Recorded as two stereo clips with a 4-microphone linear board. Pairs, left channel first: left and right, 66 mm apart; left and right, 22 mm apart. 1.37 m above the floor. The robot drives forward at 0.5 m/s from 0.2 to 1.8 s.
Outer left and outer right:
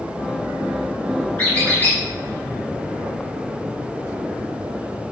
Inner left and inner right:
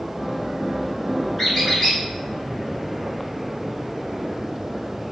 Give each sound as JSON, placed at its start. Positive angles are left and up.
{"t": 1.4, "sound": "a squeak", "side_deg": 30, "distance_m": 1.7}